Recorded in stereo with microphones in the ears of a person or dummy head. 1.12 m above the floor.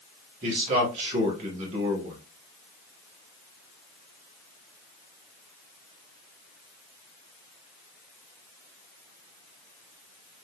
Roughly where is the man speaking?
Right.